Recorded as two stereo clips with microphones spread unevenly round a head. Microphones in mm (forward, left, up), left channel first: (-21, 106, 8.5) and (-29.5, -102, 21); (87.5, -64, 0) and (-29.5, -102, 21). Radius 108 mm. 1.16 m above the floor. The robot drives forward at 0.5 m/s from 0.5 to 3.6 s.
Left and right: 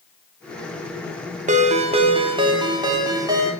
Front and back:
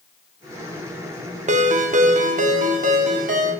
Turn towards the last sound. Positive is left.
turn(degrees=-165)